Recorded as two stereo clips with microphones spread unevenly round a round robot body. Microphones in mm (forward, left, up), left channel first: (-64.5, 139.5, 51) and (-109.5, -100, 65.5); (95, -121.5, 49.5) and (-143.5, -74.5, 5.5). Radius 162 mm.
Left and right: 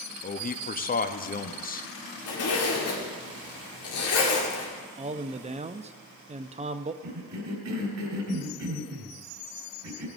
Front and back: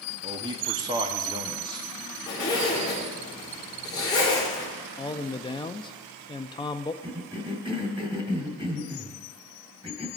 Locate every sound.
0.2 s a man speaking: 115° left, 0.9 m
2.3 s a zipper: 70° left, 2.5 m
5.0 s a man speaking: 85° right, 0.5 m
7.0 s a cough: 120° right, 3 m